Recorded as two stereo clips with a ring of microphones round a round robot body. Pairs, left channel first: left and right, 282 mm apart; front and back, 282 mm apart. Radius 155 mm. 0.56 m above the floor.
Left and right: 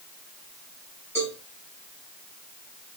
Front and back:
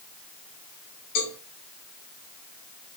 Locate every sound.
1.1 s a cowbell: 5° left, 5.5 m